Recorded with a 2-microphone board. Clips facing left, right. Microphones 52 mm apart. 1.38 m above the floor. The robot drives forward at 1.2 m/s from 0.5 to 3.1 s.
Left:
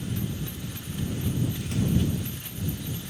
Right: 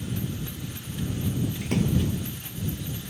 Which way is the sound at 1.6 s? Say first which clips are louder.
Right 2 dB; 80° right.